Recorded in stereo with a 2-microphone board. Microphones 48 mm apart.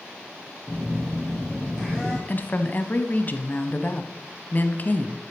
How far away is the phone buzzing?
About 4 m.